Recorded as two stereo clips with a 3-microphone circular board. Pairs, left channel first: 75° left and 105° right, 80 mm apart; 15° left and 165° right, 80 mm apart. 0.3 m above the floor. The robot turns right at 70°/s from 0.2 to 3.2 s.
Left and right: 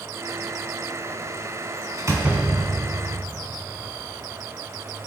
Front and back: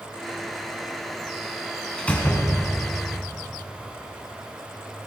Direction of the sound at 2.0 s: 65° right.